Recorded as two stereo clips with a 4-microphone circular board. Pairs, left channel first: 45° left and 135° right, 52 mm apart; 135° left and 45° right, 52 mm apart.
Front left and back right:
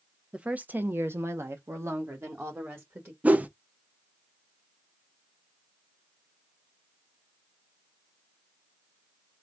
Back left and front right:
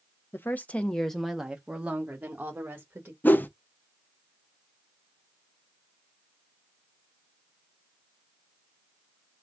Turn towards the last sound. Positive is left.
turn(degrees=175)